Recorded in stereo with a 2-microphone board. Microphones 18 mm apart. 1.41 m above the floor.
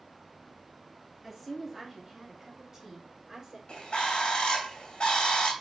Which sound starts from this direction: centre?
A woman speaking, at 1.2 s.